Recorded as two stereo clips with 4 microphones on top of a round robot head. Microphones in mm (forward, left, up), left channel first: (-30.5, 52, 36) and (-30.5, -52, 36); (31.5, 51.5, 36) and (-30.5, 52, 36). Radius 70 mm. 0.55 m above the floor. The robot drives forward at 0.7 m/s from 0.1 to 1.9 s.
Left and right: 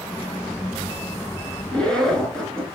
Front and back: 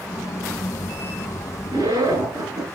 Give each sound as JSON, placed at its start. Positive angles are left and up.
{"t": 1.7, "sound": "a zipper", "azimuth_deg": 175, "distance_m": 4.5}